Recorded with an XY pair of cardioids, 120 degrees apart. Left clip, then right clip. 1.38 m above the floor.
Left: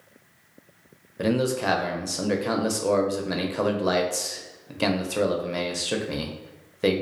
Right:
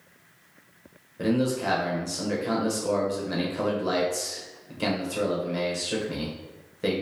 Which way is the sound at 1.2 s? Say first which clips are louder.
Left 2 dB; 35° left.